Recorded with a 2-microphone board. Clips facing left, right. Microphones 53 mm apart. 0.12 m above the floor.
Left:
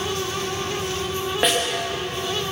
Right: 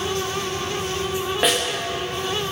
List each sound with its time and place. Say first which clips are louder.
1.4 s a snare drum: even; centre (ahead or behind), 6.5 m